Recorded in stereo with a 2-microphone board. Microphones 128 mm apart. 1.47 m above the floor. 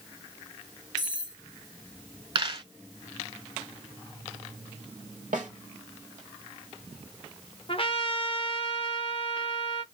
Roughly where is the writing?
I don't hear writing.